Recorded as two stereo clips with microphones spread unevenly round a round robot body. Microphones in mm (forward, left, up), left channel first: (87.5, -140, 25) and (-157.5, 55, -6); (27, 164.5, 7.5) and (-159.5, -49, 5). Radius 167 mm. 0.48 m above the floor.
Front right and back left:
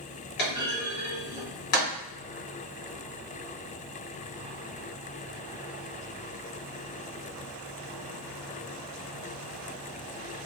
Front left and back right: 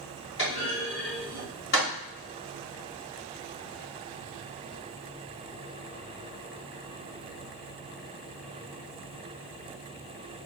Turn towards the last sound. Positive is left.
turn(degrees=-10)